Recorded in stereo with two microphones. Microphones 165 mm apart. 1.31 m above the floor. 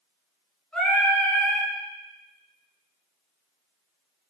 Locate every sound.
0.7 s singing: 5° left (ahead or behind), 3.5 m